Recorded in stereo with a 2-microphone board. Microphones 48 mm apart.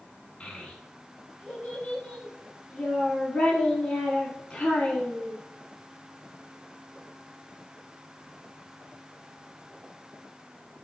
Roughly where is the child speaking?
Left.